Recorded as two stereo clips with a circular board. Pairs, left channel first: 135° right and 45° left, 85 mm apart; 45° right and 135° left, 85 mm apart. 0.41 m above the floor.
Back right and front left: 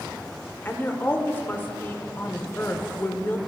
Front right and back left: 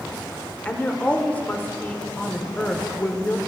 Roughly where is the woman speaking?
Right.